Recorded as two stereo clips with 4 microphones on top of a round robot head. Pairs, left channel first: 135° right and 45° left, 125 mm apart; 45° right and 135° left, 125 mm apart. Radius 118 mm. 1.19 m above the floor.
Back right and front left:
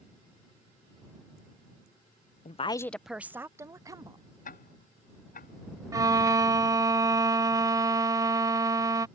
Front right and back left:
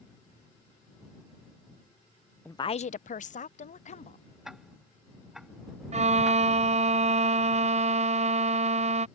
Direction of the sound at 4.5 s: 135° right.